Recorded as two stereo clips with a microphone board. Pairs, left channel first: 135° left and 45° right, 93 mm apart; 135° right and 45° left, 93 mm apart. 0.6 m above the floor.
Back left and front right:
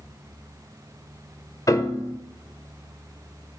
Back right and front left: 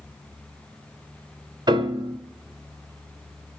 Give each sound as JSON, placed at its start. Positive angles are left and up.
{"t": 1.7, "sound": "a piano", "azimuth_deg": 85, "distance_m": 1.2}